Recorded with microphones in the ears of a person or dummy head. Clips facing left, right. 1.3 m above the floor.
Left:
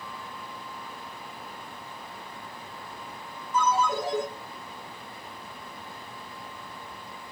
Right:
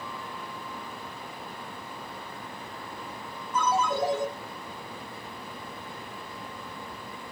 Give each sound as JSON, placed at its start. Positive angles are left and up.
{"t": 3.5, "sound": "a ringtone", "side_deg": 55, "distance_m": 1.8}